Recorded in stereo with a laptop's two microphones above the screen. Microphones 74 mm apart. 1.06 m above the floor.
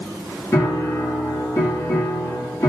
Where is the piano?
40° left (ahead or behind), 1.1 m.